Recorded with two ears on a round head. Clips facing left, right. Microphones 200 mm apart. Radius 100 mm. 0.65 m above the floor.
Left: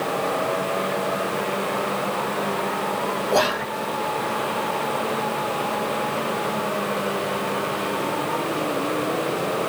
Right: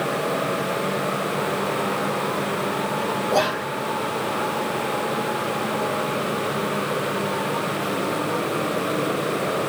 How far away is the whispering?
About 0.9 m.